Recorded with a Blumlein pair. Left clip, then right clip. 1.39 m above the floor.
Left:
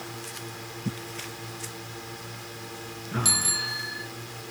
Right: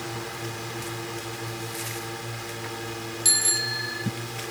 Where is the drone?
15° right.